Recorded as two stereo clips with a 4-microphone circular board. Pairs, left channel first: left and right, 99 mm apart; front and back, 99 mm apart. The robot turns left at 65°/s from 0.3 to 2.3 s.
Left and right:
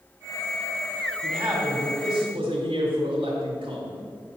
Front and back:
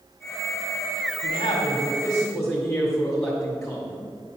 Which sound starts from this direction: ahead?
A man speaking, at 1.2 s.